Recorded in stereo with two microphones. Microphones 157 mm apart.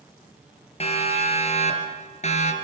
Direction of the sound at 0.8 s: 40° left (ahead or behind).